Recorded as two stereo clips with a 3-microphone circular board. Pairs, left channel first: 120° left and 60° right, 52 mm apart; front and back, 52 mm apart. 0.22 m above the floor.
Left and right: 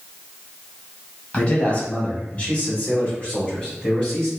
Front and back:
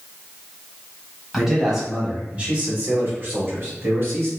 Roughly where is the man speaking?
Left.